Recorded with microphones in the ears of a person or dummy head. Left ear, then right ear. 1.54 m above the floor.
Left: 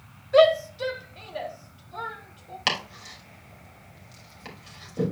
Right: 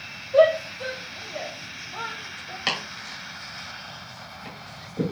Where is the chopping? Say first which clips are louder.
Left 1 dB; 15° left (ahead or behind), 3 m.